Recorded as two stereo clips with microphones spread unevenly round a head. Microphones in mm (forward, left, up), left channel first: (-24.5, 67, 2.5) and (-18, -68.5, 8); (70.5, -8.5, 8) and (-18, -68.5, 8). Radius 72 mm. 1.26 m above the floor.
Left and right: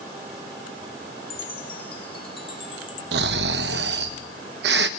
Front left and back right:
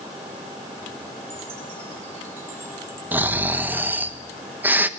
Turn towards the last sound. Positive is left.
turn(degrees=-70)